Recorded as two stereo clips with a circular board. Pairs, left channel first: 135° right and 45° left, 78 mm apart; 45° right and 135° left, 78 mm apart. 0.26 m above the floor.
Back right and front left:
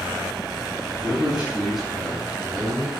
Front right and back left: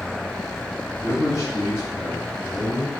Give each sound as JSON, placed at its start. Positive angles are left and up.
{"t": 0.9, "sound": "a man speaking", "azimuth_deg": -20, "distance_m": 1.7}